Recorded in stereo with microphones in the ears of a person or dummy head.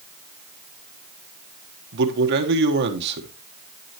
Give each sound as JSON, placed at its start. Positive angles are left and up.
{"t": 1.9, "sound": "a man speaking", "side_deg": -65, "distance_m": 1.3}